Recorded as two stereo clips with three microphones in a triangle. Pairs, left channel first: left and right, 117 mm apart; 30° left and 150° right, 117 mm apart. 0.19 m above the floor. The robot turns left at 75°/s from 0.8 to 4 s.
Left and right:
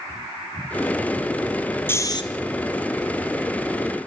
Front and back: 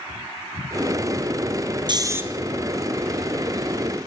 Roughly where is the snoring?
Behind.